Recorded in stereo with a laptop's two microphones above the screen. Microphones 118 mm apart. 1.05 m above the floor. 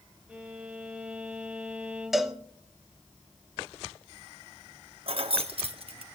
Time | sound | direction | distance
0.3 | a violin | 10° right (ahead or behind) | 1.1 m
2.1 | a cowbell | centre (ahead or behind) | 0.7 m
5.1 | keys jangling | 55° right (ahead or behind) | 1.2 m